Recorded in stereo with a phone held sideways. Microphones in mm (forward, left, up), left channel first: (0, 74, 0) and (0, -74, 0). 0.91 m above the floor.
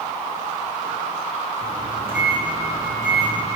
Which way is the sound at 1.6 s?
65° left (ahead or behind).